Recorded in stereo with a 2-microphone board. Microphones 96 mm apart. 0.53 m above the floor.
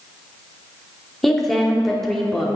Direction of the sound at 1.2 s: 5° left (ahead or behind).